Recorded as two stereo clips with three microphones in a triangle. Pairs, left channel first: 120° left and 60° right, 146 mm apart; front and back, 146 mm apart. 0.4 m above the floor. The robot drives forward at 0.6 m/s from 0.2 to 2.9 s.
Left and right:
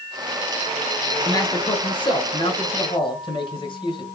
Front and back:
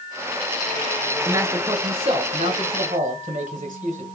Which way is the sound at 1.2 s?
130° left.